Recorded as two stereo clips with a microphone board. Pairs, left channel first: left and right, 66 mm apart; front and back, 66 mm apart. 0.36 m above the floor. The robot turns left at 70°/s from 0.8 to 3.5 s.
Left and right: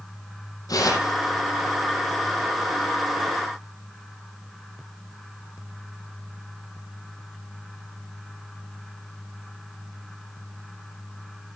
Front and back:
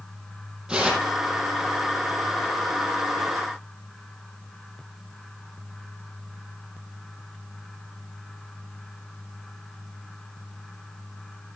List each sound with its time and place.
0.7 s tearing paper: 105° left, 5 m; by 1.2 s 80° left, 5 m